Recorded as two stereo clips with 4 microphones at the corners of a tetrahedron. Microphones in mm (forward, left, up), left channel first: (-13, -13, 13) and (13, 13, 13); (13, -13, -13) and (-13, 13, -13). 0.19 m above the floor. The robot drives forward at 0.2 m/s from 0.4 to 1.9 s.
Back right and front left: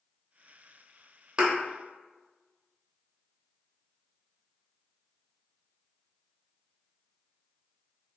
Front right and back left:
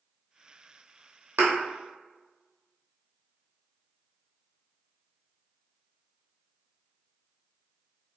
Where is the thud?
110° left, 0.8 m; by 1.5 s 115° left, 0.9 m.